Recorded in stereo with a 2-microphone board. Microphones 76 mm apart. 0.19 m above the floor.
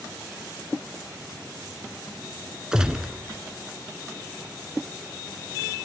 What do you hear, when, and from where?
2.7 s a gunshot: 10° right (ahead or behind), 1.5 m